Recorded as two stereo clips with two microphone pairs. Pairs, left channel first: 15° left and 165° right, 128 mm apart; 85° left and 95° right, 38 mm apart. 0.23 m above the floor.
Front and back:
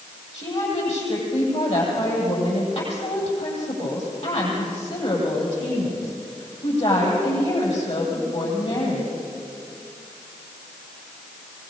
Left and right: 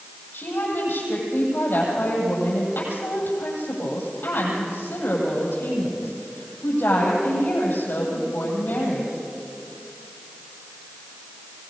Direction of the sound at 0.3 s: 50° left.